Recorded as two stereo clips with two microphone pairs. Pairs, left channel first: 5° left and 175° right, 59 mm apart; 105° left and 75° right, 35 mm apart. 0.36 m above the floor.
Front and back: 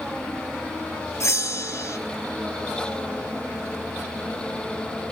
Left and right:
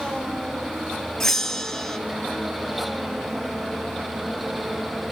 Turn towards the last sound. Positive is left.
turn(degrees=35)